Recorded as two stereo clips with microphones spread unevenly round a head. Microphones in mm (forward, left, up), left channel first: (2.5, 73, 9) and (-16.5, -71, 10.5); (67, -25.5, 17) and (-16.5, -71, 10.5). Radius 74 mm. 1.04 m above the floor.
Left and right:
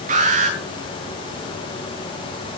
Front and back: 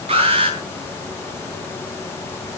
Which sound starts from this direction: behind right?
An alarm, at 0.1 s.